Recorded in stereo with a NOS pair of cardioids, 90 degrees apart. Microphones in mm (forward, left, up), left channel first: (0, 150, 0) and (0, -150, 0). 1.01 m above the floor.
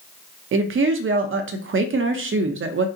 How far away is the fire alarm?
No fire alarm in this recording.